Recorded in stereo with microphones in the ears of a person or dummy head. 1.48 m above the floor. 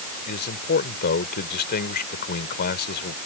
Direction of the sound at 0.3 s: 50° left (ahead or behind).